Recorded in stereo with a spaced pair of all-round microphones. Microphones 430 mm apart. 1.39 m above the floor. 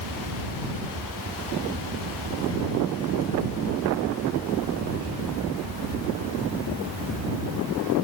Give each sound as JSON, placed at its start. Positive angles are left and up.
{"t": 0.0, "sound": "a fan", "side_deg": -75}